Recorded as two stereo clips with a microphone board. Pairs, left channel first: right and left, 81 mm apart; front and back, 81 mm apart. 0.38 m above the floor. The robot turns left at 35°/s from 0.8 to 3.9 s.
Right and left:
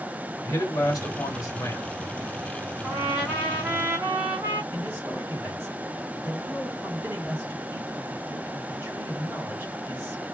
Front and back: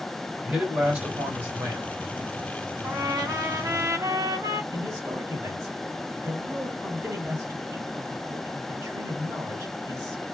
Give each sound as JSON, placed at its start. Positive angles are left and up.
{"t": 0.4, "sound": "a man speaking", "azimuth_deg": -100, "distance_m": 2.5}
{"t": 2.8, "sound": "a trumpet", "azimuth_deg": -170, "distance_m": 2.0}
{"t": 4.7, "sound": "a man speaking", "azimuth_deg": 135, "distance_m": 2.5}